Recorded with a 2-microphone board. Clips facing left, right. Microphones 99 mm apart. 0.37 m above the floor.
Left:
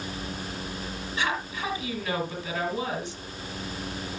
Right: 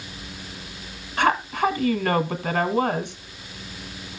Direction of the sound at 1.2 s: 65° right (ahead or behind).